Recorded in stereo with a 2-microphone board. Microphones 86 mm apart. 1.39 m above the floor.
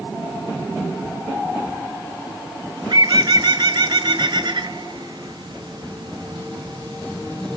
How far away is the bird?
About 1.1 m.